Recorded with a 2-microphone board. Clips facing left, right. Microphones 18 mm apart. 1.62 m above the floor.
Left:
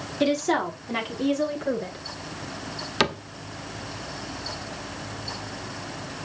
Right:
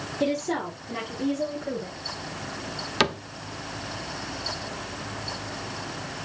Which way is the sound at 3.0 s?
5° right (ahead or behind).